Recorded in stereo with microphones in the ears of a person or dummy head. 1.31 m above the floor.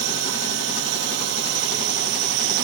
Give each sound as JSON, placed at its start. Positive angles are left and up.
{"t": 0.0, "sound": "a drone", "side_deg": -75}